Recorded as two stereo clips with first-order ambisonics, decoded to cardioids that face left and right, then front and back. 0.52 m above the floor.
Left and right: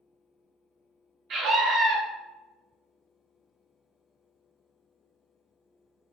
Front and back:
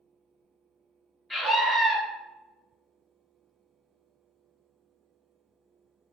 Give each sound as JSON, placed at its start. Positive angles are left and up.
{"t": 1.3, "sound": "a scream", "azimuth_deg": -85, "distance_m": 0.7}